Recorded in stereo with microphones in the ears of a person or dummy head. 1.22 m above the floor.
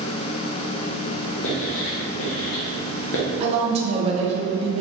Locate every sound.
1.4 s writing: 65° left (ahead or behind), 0.8 m
3.4 s a woman speaking: 35° right (ahead or behind), 0.8 m